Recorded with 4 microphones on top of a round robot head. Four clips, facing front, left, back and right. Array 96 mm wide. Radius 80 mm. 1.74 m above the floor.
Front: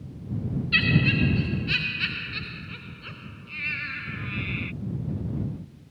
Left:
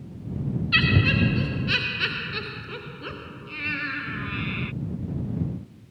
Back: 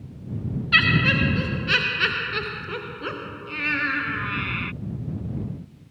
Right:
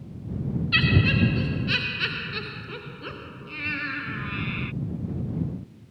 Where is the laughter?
Straight behind; by 4.7 s 170° right.